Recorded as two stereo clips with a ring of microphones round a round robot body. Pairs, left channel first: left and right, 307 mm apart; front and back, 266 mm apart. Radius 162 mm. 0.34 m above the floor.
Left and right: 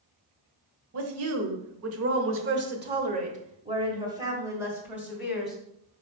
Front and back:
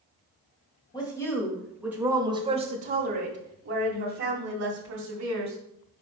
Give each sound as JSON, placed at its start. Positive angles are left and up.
{"t": 0.9, "sound": "a woman speaking", "azimuth_deg": -70, "distance_m": 1.4}